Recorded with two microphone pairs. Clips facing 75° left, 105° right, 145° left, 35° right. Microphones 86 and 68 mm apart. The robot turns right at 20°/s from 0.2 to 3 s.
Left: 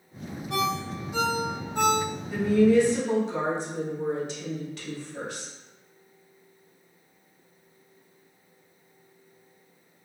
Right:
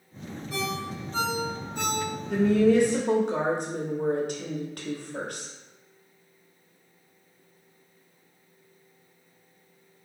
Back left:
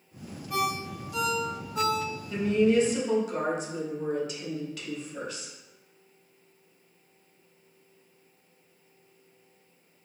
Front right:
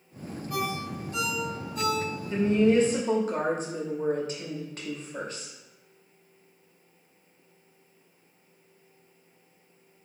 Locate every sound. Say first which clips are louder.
0.5 s a ringtone: left 4 dB, back left 2 dB; 75° left, 1.6 m; by 2.1 s 110° left, 1.6 m
2.3 s a woman speaking: even, front right 1 dB; 95° right, 0.9 m; by 5.5 s 80° right, 0.9 m